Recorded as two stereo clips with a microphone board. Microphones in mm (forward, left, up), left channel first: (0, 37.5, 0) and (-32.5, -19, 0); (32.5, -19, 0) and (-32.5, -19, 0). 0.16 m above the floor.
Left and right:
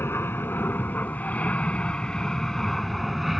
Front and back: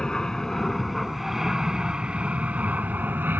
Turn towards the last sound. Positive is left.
turn(degrees=155)